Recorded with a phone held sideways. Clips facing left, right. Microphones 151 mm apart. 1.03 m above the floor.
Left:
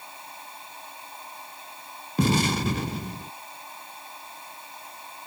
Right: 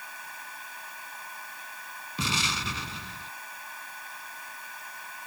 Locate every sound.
0.0 s a fan: 25° left (ahead or behind)
2.2 s an explosion: 50° left (ahead or behind)